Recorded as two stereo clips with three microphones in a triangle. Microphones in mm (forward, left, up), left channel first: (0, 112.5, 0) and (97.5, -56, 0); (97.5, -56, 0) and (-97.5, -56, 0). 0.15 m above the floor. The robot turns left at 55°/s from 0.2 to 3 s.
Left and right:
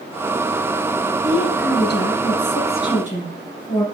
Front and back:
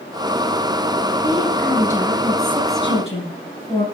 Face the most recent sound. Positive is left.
turn(degrees=50)